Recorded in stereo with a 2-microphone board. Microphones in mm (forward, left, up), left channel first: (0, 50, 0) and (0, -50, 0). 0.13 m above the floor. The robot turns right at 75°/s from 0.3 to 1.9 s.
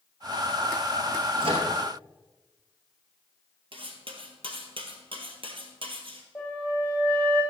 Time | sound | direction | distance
1.4 | a microwave | 60° right (ahead or behind) | 2 m
3.7 | cutlery clinking | 60° right (ahead or behind) | 1.7 m
6.3 | a flute | 10° left (ahead or behind) | 6 m